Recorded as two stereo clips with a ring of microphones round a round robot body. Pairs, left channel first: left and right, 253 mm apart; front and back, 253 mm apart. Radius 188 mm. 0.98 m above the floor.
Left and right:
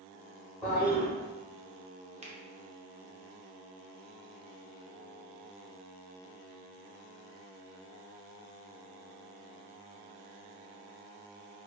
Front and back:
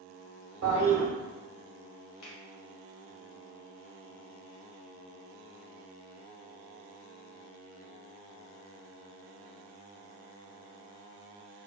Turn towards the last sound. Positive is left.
turn(degrees=-20)